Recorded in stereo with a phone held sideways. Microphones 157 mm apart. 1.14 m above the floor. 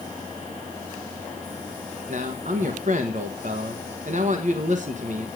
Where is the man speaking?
60° right (ahead or behind), 1.2 m.